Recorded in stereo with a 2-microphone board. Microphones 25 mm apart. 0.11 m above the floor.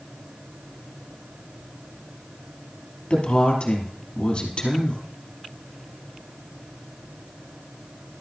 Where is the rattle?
No rattle in this recording.